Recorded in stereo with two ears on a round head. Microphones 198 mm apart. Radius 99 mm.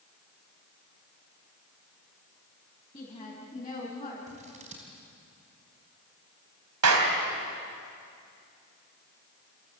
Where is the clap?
80° right, 3.5 m.